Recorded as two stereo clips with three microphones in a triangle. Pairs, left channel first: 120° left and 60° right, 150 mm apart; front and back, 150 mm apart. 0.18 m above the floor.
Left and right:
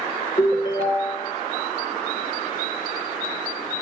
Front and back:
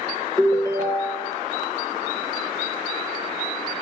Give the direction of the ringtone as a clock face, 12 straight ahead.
10 o'clock.